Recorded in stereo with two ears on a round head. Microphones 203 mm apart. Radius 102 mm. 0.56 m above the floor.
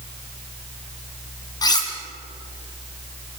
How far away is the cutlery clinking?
About 3.5 m.